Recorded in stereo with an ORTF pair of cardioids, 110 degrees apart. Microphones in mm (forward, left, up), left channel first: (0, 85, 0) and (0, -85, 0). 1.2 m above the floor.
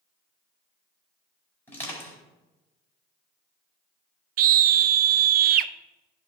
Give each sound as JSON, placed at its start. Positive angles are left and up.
{"t": 1.7, "sound": "crushing", "azimuth_deg": 15, "distance_m": 4.5}
{"t": 4.4, "sound": "a scream", "azimuth_deg": -60, "distance_m": 0.6}